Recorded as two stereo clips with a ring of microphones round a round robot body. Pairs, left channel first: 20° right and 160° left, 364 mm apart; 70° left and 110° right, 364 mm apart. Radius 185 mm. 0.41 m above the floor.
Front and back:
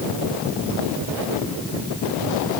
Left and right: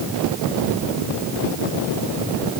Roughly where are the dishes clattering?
No dishes clattering in this recording.